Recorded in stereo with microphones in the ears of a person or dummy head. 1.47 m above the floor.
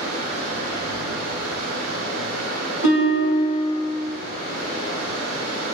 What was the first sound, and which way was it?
Running water, 80° right.